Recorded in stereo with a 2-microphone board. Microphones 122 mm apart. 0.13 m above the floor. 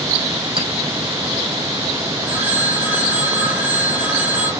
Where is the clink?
50° right (ahead or behind), 5 m.